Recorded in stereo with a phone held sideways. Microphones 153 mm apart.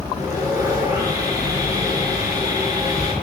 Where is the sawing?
25° right (ahead or behind), 5 m.